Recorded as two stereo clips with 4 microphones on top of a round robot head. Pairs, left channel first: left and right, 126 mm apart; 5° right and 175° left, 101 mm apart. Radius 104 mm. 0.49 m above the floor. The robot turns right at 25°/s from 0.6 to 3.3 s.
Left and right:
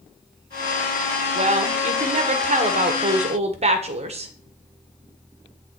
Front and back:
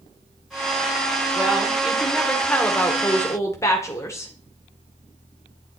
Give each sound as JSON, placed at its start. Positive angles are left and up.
{"t": 1.4, "sound": "a woman speaking", "azimuth_deg": -110, "distance_m": 1.5}